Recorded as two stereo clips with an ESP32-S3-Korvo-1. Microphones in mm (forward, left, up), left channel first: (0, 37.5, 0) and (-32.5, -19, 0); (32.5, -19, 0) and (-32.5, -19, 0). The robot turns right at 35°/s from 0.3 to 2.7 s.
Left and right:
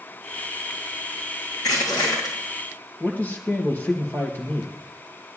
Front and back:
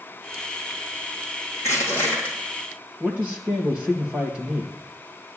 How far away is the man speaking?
About 2.5 m.